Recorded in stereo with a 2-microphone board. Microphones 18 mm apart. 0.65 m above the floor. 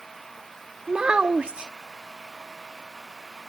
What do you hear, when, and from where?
0.9 s a child speaking: 55° right (ahead or behind)